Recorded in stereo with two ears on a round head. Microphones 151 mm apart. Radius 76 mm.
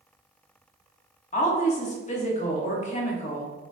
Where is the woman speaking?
45° left (ahead or behind), 1.1 m.